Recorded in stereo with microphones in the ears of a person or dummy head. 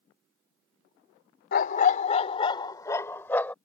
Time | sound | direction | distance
1.5 | a dog barking | 55° left (ahead or behind) | ?